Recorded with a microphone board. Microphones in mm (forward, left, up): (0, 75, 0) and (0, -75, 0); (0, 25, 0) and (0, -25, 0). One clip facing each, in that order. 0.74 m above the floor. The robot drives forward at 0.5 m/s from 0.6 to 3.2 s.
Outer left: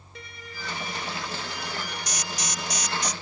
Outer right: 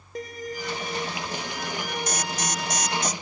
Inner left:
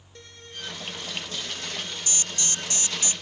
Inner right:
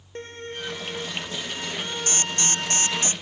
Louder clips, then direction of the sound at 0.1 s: Outer right 11 dB, inner right 8 dB; 40° right (ahead or behind).